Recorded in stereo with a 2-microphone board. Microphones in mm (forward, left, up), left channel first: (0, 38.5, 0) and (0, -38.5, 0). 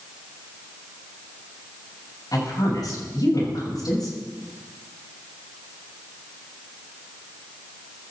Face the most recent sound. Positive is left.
turn(degrees=55)  # may be behind; listen again after turning